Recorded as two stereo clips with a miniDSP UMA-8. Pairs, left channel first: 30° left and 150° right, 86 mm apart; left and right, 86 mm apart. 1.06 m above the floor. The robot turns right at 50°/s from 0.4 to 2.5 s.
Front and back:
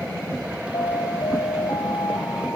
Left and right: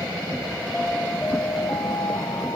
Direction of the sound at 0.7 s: 5° left.